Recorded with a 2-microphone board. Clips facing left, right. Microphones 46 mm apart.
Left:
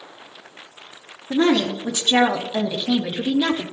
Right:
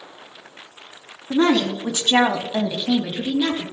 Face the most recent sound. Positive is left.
turn(degrees=15)  # may be behind; listen again after turning